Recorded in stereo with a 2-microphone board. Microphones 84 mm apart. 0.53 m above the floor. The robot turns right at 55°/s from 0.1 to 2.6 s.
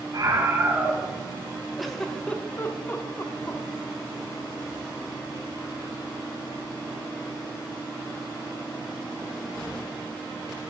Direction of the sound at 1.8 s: Centre (ahead or behind).